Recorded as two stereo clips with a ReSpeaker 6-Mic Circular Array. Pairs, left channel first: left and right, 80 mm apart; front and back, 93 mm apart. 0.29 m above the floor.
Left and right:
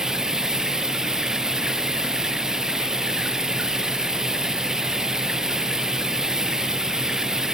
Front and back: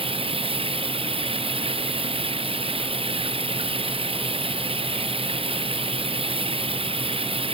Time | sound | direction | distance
0.0 | running water | 175° right | ?